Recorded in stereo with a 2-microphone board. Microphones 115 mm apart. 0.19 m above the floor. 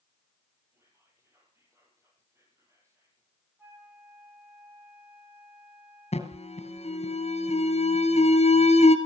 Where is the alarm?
70° left (ahead or behind), 2.0 m.